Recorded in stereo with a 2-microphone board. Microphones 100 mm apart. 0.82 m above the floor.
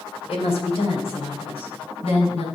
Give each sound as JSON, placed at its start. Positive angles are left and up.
{"t": 0.3, "sound": "a woman speaking", "side_deg": 80, "distance_m": 3.0}